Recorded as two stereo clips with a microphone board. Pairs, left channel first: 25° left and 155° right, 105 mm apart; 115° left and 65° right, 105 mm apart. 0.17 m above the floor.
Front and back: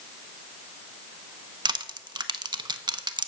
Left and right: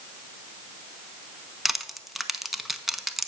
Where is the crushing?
155° right, 0.5 m.